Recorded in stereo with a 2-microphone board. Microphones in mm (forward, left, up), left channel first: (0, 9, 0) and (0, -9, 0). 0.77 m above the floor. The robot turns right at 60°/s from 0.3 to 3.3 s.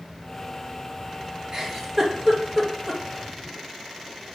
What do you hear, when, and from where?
1.5 s a giggle: 35° right (ahead or behind), 0.8 m; by 3.0 s 5° left (ahead or behind), 0.8 m